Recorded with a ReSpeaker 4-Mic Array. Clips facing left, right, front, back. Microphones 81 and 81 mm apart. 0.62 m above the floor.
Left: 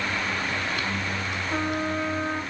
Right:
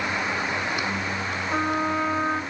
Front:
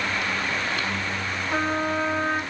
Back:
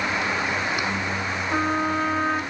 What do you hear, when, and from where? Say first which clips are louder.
1.5 s a trumpet: right 3 dB, back 1 dB; 105° right, 4 m